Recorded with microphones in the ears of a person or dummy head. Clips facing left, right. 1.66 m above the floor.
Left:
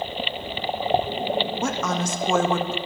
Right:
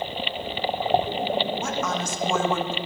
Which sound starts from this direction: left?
A woman speaking, at 1.6 s.